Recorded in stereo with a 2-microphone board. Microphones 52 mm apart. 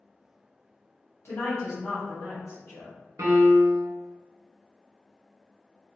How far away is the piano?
About 0.9 m.